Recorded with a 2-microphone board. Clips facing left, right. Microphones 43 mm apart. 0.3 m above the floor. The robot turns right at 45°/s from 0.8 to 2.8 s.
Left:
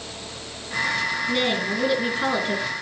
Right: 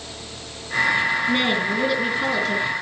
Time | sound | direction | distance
1.3 | a woman speaking | 30° right | 4.5 m